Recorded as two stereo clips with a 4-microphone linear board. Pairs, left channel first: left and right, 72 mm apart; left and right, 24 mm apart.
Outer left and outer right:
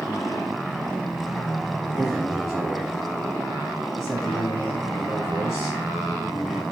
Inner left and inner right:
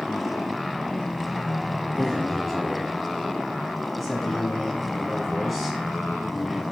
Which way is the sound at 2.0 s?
5° right (ahead or behind).